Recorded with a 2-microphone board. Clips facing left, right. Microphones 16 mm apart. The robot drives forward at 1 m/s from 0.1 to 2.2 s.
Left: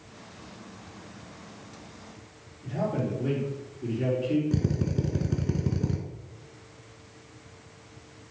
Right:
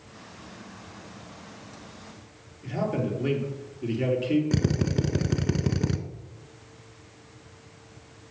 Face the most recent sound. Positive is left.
turn(degrees=-50)  # may be behind; listen again after turning